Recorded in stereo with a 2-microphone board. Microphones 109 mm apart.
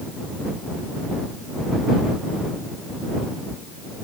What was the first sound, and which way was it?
Only background noise.